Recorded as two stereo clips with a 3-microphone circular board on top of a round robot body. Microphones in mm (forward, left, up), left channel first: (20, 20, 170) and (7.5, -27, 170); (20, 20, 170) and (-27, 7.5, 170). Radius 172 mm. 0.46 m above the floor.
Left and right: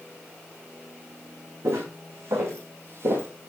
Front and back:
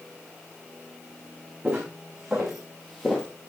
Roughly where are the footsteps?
Right.